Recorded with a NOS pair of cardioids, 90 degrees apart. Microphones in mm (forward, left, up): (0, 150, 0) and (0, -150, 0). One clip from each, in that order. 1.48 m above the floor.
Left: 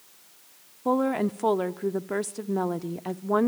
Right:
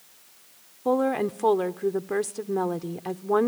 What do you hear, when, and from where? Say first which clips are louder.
0.8 s a woman speaking: right 1 dB; straight ahead, 0.8 m